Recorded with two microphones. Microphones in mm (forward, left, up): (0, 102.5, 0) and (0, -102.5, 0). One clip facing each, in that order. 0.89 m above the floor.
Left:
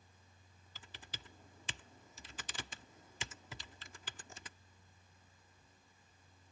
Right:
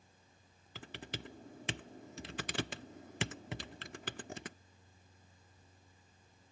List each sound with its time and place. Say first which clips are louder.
0.8 s typing on a keyboard: right 11 dB; 70° right (ahead or behind)